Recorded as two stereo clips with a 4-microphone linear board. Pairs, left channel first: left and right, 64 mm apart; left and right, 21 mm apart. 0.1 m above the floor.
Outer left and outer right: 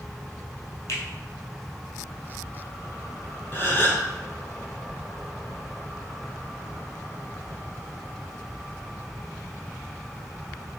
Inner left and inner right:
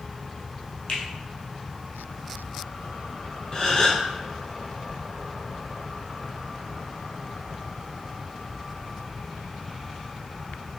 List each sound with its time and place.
0.9 s a finger snap: 50° left (ahead or behind), 1.7 m
3.5 s a gasp: 35° left (ahead or behind), 1.0 m